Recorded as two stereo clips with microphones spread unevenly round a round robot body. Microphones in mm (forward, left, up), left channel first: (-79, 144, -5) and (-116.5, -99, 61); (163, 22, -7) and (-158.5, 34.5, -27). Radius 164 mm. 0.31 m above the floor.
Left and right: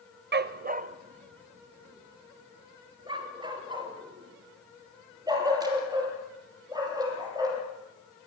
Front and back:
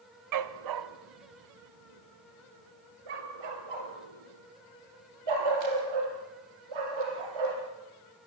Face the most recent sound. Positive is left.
turn(degrees=-175)